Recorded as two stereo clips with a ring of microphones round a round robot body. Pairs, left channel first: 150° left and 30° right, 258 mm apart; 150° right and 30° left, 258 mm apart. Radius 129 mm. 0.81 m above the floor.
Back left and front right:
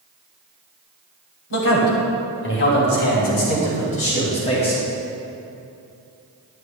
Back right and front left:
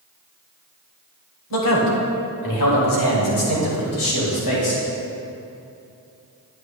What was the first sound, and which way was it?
A man speaking, straight behind.